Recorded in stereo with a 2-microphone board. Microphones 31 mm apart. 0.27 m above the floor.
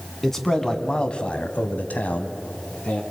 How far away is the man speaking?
About 2 m.